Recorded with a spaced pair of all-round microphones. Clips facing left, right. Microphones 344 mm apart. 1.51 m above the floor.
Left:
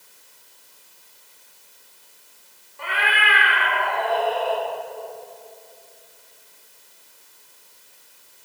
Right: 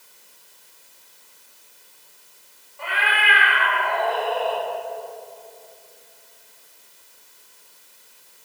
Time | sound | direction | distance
2.8 | a cat meowing | 25° left (ahead or behind) | 2 m